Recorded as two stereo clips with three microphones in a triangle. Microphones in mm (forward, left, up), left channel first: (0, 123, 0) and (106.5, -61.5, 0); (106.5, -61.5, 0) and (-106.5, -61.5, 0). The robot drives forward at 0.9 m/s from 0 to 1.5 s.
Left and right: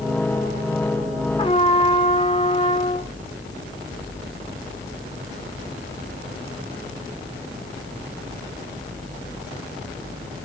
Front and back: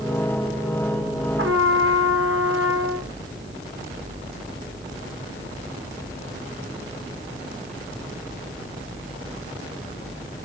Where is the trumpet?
Straight behind, 1.9 m.